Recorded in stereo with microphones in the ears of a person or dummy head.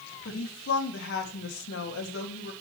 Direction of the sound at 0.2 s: 60° left (ahead or behind).